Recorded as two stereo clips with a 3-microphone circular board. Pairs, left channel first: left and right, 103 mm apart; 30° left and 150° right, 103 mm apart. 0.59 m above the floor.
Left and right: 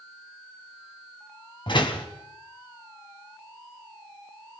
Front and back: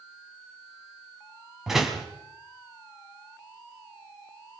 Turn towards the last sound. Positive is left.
turn(degrees=125)